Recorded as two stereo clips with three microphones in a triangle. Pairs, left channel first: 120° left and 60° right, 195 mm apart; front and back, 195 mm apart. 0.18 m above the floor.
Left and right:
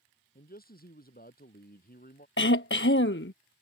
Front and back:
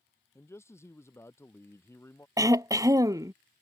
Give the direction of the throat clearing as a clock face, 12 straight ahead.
8 o'clock.